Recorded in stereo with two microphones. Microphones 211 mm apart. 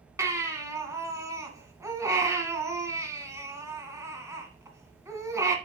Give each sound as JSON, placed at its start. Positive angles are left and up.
{"t": 0.2, "sound": "a baby crying", "side_deg": -15, "distance_m": 1.8}